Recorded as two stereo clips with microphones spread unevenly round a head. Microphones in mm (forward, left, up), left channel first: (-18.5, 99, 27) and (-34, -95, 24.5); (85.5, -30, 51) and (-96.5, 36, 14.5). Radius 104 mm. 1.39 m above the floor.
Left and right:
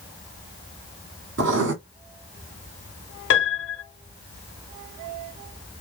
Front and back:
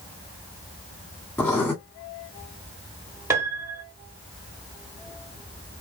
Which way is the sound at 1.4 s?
90° right.